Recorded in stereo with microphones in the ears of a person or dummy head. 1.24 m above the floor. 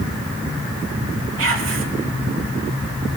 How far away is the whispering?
About 2 m.